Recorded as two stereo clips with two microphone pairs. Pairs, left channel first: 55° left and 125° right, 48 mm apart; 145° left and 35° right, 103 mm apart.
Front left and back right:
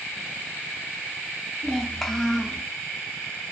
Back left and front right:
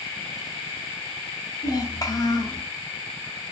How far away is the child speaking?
About 0.5 m.